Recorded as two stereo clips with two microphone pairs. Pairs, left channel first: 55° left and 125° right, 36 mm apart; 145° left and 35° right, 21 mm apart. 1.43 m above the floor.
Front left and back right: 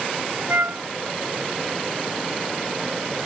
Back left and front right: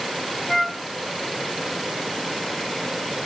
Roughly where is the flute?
Behind right.